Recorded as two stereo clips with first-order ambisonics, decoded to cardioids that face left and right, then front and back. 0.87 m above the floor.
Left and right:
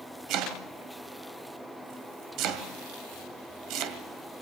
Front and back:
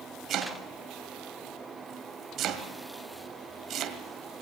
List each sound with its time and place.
0.3 s chopping: 130° right, 2 m